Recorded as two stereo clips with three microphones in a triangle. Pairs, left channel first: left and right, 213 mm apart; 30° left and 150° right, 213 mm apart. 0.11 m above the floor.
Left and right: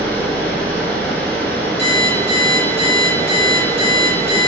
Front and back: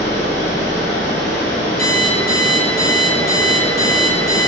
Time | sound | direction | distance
0.0 | running water | 15° left | 1.3 m
1.8 | an alarm clock | 95° right | 1.5 m